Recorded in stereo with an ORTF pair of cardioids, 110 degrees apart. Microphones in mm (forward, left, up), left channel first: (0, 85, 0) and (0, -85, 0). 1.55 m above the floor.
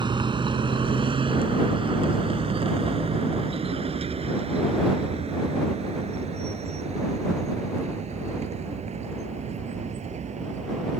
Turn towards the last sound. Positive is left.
turn(degrees=-40)